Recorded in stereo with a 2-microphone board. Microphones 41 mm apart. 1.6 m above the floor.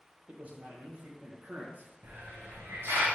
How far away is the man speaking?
About 0.9 m.